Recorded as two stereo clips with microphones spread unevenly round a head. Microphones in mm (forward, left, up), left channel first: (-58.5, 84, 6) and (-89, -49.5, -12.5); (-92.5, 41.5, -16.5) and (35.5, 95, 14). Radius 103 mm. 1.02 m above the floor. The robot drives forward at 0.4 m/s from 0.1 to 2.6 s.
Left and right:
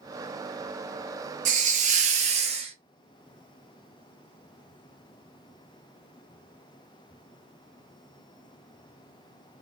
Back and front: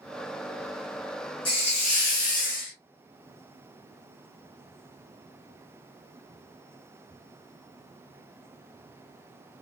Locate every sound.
1.4 s a hiss: 105° right, 0.6 m; by 2.7 s 140° right, 0.8 m